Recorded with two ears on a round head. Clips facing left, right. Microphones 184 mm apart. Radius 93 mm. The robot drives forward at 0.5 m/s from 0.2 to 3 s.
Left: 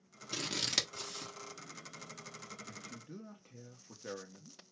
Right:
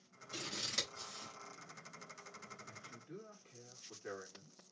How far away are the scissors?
About 1.5 m.